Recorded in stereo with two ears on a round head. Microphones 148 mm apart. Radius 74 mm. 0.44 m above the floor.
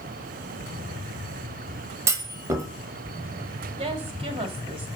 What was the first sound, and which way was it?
A clunk, 20° right (ahead or behind).